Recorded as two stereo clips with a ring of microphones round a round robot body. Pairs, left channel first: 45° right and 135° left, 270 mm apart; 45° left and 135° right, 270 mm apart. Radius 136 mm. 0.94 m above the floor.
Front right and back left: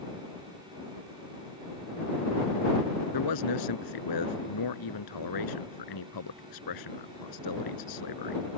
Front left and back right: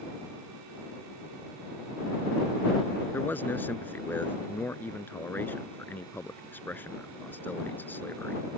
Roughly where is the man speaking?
Ahead right.